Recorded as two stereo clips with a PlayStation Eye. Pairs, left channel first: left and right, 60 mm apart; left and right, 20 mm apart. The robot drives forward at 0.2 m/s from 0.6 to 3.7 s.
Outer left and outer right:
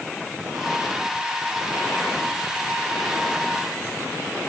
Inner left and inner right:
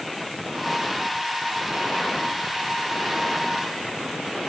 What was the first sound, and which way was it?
Only background noise.